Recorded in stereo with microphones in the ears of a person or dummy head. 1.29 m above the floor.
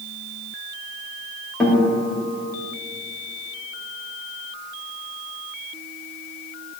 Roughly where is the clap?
I don't hear a clap.